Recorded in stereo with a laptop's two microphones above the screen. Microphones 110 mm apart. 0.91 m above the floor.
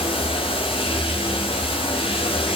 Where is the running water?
55° left (ahead or behind), 6 m.